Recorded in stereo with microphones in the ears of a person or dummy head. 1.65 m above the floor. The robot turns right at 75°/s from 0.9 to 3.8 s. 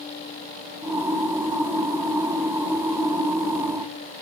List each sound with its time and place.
Only background noise.